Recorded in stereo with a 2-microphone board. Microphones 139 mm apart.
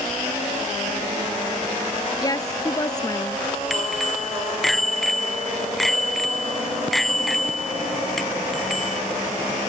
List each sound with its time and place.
2.2 s a woman speaking: 25° left (ahead or behind)
3.7 s a bicycle bell: centre (ahead or behind)